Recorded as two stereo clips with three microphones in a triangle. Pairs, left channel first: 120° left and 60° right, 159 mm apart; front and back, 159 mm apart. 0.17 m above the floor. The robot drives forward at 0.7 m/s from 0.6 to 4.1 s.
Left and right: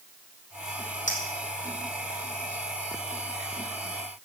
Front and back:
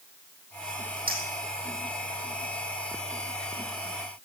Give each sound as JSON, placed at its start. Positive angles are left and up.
{"t": 1.1, "sound": "a clink", "azimuth_deg": 160, "distance_m": 4.5}